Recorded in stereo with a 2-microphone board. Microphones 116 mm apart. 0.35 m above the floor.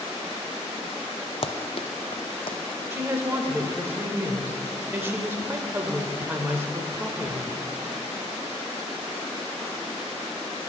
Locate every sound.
1.4 s running footsteps: 55° left (ahead or behind), 0.6 m; by 2.6 s 50° left (ahead or behind), 1.3 m
2.9 s a woman speaking: 20° right (ahead or behind), 0.9 m